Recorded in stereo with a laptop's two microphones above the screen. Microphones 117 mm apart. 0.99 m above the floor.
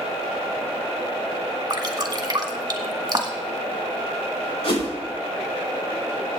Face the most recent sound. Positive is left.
turn(degrees=55)  # may be behind; listen again after turning